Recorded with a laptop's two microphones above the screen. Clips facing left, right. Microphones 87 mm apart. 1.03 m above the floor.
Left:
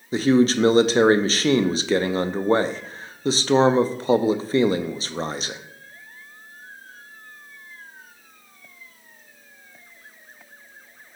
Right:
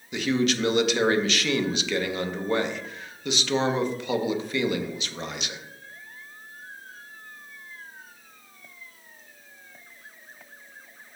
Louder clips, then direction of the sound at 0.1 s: Left 7 dB; 35° left (ahead or behind).